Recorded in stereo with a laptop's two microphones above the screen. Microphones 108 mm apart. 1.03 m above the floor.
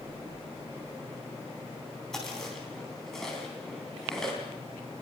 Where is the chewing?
5° left (ahead or behind), 4 m.